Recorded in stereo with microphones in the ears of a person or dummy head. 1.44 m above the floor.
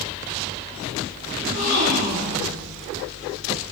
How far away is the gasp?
About 2.0 m.